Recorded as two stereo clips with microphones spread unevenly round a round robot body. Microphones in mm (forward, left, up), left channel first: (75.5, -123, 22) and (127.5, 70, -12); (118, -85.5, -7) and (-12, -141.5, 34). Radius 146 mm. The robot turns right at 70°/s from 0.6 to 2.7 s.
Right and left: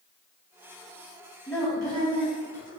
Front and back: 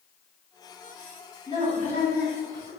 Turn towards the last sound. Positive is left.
turn(degrees=60)